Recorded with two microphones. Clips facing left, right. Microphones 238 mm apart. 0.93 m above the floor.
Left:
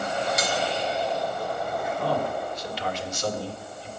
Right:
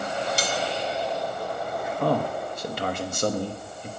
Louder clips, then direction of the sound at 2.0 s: Right 4 dB; 55° right (ahead or behind).